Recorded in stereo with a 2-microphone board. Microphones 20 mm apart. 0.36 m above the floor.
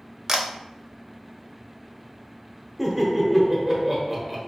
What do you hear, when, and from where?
0.3 s a camera shutter: 20° right (ahead or behind), 0.6 m
2.8 s laughter: 10° right (ahead or behind), 1.1 m